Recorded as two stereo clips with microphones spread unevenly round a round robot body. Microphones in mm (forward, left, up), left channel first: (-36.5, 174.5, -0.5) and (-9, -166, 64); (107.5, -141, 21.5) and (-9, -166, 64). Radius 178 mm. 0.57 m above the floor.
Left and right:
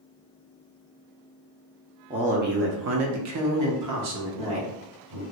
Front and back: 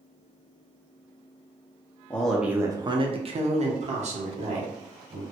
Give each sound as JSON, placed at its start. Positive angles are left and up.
{"t": 2.1, "sound": "a man speaking", "azimuth_deg": -5, "distance_m": 0.7}